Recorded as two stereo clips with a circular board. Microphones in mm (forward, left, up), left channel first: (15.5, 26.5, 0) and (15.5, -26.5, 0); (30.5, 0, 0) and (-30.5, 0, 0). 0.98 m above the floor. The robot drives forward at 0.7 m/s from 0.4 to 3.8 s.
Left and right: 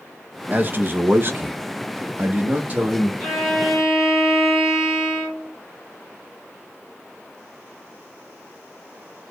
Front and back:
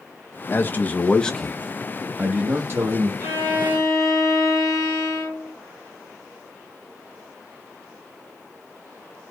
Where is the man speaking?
45° right, 1.2 m; by 3.1 s 145° right, 1.5 m.